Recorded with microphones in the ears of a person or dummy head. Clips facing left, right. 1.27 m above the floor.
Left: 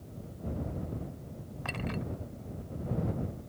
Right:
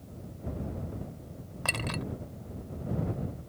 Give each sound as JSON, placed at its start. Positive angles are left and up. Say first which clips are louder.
{"t": 1.6, "sound": "a clink", "louder": "right 1 dB", "side_deg": -60}